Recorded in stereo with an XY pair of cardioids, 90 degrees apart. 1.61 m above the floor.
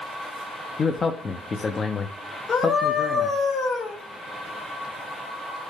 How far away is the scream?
About 3 m.